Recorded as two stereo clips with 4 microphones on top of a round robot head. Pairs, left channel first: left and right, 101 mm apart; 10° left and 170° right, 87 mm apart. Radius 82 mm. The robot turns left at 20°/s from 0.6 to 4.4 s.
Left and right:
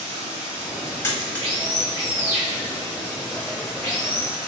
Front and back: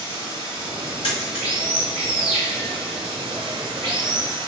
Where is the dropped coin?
25° left, 1.2 m; by 1.9 s 5° left, 1.2 m.